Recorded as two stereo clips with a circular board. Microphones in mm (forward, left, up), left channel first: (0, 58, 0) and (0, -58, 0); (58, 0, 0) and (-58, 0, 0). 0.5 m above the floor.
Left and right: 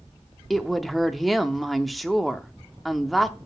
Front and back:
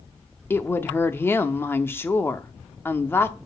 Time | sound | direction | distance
0.5 | a woman speaking | straight ahead | 0.6 m